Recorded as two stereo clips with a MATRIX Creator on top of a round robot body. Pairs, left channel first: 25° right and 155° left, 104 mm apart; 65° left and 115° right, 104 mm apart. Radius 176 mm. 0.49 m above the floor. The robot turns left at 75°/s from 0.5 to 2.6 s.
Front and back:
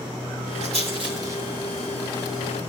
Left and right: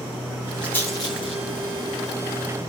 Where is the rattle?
150° left, 8.5 m; by 2.7 s straight ahead, 8.5 m.